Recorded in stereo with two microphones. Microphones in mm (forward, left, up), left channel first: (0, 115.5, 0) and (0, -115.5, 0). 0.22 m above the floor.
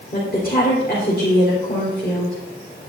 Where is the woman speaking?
40° left (ahead or behind), 3.5 m.